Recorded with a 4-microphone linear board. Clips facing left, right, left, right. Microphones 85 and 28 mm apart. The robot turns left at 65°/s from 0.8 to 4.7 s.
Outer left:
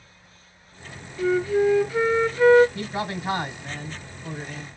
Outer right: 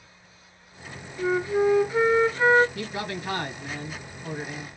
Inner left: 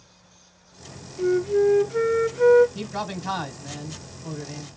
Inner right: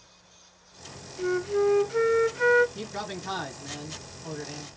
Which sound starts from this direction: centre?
A flute, at 1.2 s.